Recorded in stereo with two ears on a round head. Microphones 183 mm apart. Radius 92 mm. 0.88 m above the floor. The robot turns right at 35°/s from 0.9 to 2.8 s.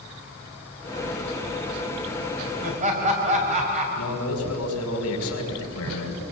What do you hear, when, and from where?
2.6 s laughter: 40° right (ahead or behind), 5.5 m; by 3.9 s 35° right (ahead or behind), 5.5 m
4.0 s a man speaking: 85° left, 5.5 m